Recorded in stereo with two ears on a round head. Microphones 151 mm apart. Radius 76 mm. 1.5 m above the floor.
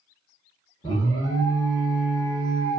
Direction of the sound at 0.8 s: 25° left (ahead or behind).